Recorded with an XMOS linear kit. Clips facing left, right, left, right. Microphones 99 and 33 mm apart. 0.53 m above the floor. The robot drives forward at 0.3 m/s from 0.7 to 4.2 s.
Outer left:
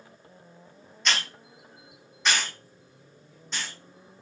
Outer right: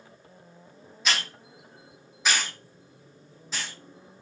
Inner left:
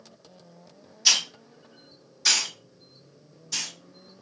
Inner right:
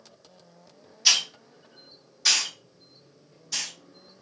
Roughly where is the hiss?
Centre.